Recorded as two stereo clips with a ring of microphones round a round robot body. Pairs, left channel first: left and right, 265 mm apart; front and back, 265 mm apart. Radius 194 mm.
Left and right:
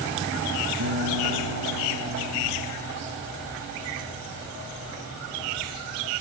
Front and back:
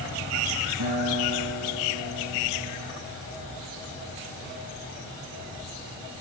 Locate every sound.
0.8 s a guitar: 140° right, 6.5 m